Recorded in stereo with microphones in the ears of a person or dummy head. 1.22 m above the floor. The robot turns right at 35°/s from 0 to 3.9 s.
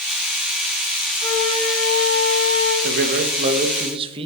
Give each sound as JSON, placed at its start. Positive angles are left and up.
{"t": 1.2, "sound": "a flute", "azimuth_deg": 20, "distance_m": 2.0}
{"t": 2.8, "sound": "a man speaking", "azimuth_deg": -65, "distance_m": 1.6}